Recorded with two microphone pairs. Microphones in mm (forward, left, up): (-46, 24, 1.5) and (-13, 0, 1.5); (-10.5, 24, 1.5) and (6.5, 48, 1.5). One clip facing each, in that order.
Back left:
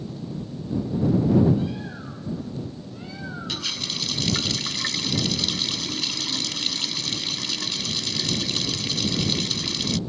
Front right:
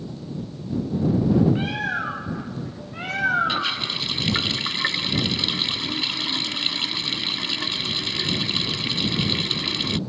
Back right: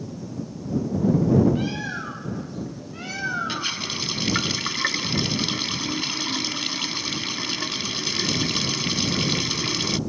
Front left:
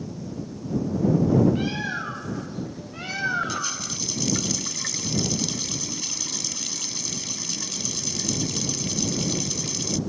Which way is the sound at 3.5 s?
95° right.